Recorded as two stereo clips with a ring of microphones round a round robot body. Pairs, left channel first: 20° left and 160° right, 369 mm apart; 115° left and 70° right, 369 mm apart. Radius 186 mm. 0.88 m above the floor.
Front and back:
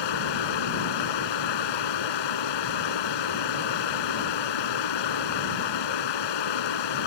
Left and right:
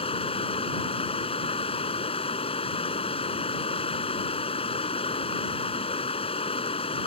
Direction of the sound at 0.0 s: 40° left.